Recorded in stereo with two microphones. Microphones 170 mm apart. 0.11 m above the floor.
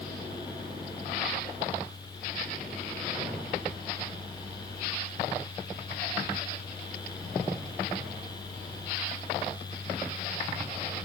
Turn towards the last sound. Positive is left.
No sound to turn to.